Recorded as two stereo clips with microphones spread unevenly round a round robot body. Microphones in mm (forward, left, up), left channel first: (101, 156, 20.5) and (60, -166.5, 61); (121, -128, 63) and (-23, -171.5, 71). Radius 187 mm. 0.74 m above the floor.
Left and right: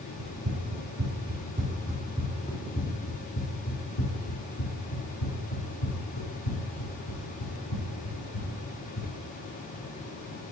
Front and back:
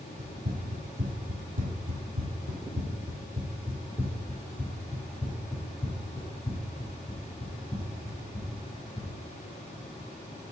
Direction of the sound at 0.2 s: 140° right.